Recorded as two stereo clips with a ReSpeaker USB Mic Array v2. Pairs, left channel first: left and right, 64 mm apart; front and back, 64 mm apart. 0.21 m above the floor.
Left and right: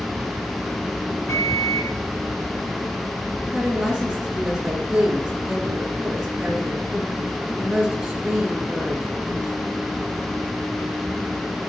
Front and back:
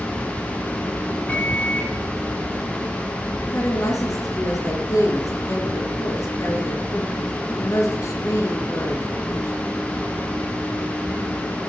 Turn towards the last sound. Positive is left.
turn(degrees=-10)